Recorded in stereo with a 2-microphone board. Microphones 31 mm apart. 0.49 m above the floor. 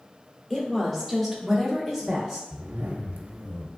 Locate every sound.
0.5 s a woman speaking: 10° left (ahead or behind), 1.0 m; by 2.4 s 5° right (ahead or behind), 0.9 m
2.5 s a zipper: 70° right (ahead or behind), 0.5 m